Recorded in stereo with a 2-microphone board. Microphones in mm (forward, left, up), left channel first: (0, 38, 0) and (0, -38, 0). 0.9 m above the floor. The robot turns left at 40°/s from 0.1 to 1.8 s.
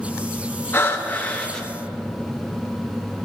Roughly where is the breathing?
Ahead left.